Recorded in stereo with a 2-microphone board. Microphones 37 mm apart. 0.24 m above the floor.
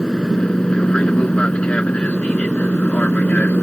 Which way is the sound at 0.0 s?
20° left (ahead or behind).